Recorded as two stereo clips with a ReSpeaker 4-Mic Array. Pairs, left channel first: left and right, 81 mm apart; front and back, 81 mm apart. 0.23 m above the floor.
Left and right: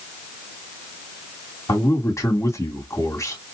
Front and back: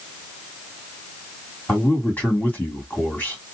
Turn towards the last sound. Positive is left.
turn(degrees=60)